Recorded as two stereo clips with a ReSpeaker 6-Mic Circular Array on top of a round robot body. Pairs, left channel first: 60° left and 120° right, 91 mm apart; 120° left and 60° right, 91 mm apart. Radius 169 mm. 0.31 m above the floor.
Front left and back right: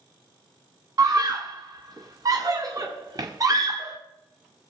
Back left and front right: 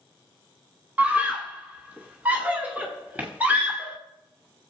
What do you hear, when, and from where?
1.0 s a scream: 125° right, 1.8 m